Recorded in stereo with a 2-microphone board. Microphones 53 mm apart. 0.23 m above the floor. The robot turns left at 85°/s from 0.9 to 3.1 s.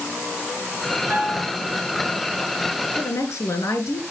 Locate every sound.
1.1 s a piano: 140° right, 4 m; by 1.6 s straight behind, 4 m
3.0 s a woman speaking: 70° left (ahead or behind), 3.5 m